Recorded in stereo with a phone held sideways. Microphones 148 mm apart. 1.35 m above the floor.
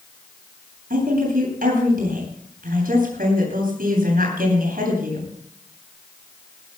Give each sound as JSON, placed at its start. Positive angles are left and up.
{"t": 0.9, "sound": "a woman speaking", "side_deg": -75, "distance_m": 9.5}